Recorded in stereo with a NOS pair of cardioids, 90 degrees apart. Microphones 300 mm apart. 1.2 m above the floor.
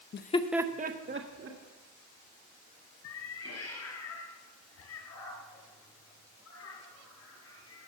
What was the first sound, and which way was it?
Laughter, 40° left.